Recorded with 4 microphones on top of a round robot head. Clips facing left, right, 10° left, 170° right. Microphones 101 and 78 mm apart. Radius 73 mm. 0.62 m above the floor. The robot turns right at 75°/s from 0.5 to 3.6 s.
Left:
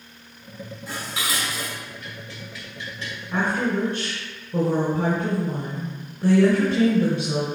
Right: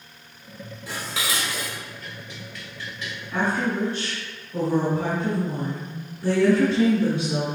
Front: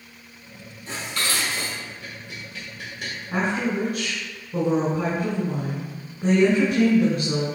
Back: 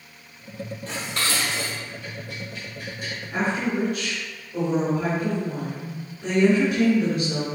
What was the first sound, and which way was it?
Dishes clattering, 125° right.